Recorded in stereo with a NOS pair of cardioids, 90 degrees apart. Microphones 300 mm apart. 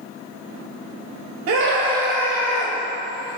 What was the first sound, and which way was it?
A scream, 55° right.